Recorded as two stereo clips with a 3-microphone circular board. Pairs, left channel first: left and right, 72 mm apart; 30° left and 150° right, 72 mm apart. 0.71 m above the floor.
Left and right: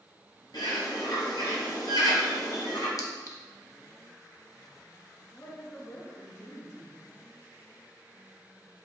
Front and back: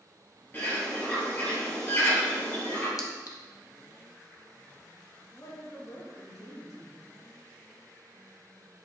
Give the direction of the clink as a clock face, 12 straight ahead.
10 o'clock.